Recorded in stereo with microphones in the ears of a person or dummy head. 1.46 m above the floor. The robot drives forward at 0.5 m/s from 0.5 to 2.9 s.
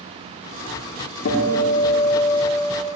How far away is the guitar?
About 0.9 m.